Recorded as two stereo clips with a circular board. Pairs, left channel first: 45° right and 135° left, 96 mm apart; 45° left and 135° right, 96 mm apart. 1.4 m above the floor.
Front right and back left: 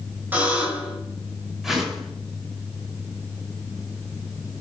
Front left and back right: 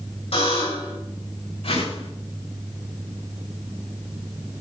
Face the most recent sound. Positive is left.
turn(degrees=50)